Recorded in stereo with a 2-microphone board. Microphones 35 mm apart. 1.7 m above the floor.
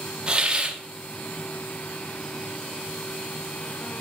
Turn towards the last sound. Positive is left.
turn(degrees=-25)  # may be behind; listen again after turning